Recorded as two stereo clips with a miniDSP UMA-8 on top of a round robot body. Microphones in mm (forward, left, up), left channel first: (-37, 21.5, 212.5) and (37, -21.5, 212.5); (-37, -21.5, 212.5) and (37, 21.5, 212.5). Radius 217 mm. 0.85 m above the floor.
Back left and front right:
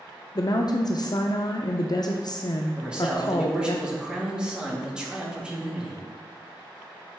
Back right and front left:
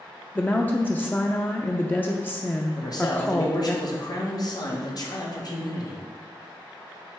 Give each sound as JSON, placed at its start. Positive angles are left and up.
{"t": 0.3, "sound": "a woman speaking", "azimuth_deg": 145, "distance_m": 0.7}
{"t": 2.8, "sound": "a man speaking", "azimuth_deg": -110, "distance_m": 1.8}